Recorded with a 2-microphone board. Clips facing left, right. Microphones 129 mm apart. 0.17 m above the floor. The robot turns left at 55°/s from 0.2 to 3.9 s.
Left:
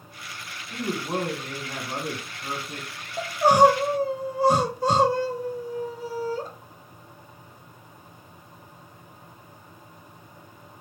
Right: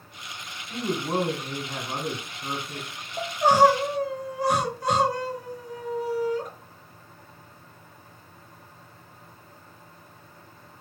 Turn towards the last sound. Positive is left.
turn(degrees=145)